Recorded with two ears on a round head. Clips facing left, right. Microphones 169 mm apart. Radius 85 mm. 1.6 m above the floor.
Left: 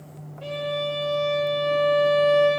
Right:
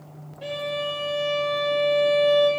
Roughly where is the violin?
Centre.